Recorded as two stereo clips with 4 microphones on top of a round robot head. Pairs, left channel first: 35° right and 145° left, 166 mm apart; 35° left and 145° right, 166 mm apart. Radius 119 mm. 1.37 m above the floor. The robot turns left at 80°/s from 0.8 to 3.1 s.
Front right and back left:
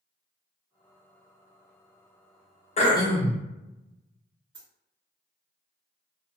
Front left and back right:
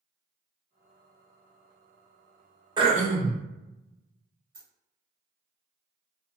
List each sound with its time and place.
2.8 s throat clearing: 85° right, 0.7 m; by 3.4 s 110° right, 0.7 m
4.5 s a dropped coin: 110° right, 1.7 m